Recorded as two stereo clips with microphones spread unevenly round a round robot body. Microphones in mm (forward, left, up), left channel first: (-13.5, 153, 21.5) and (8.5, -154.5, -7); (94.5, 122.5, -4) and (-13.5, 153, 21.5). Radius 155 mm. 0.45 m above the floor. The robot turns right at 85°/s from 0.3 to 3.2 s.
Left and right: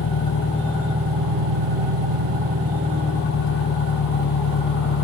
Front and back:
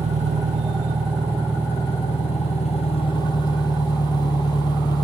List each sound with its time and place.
0.0 s an engine running: 145° left, 1.1 m; by 5.0 s 35° left, 1.1 m